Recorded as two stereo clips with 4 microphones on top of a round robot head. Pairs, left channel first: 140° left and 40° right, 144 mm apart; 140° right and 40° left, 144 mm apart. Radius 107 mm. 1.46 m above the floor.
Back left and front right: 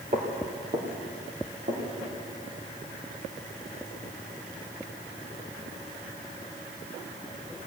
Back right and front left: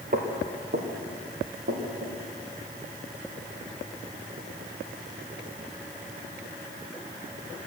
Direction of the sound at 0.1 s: 15° left.